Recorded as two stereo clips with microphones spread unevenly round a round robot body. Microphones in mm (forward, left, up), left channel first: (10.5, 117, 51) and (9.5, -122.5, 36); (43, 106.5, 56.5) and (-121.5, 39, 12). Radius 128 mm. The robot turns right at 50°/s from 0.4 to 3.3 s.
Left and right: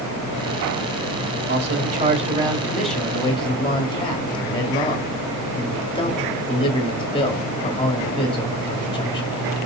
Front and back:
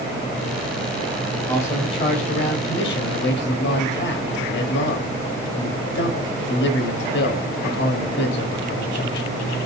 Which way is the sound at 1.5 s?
70° right.